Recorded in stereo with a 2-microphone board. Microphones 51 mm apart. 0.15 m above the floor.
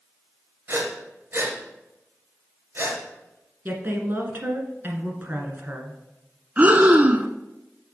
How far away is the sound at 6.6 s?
About 0.5 m.